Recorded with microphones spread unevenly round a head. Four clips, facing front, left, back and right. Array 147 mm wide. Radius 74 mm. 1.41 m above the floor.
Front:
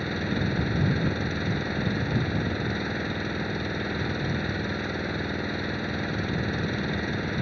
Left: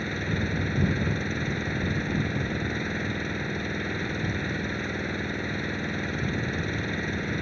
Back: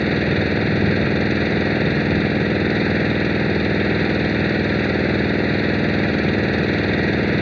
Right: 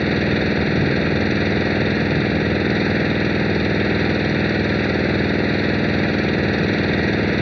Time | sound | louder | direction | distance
0.0 | an engine running | right 12 dB, back 10 dB | 140° right | ?